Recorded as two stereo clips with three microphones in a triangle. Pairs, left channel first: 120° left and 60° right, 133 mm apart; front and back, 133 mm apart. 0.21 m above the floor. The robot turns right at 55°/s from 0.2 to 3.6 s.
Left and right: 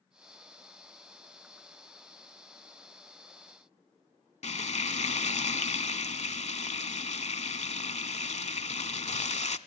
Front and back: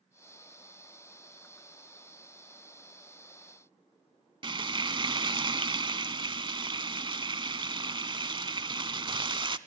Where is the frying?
135° left, 0.7 m.